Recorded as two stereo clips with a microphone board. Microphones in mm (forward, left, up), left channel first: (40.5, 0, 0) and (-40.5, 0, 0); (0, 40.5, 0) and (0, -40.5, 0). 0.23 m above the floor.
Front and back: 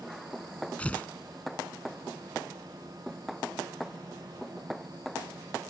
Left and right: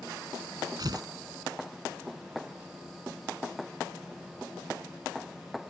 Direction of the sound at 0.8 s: 70° right.